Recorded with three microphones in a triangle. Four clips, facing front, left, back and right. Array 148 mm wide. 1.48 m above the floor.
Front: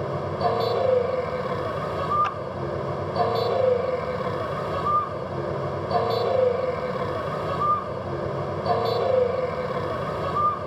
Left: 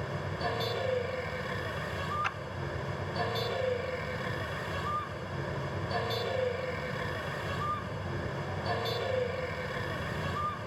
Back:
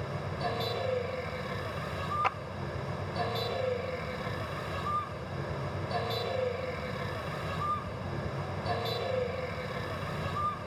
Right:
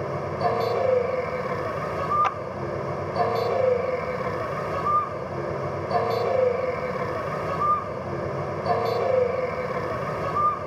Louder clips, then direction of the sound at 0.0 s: Right 10 dB, front 10 dB; 35° right.